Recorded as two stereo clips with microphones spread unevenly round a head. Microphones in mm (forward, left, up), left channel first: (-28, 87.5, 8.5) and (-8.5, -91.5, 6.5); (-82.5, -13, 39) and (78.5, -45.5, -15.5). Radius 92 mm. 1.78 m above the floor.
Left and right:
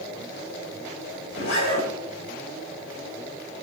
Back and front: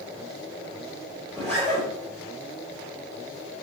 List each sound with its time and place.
1.3 s a zipper: 85° left, 10 m